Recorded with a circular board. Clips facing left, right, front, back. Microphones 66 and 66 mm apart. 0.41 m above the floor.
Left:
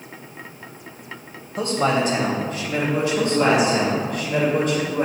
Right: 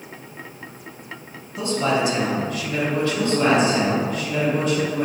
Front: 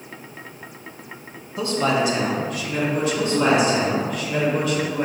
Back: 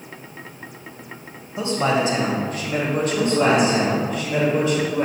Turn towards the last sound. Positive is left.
turn(degrees=125)